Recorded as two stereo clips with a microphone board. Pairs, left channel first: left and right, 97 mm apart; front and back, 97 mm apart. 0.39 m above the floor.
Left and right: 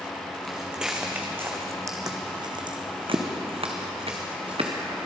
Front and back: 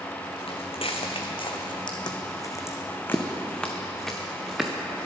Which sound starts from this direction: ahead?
Footsteps, at 0.5 s.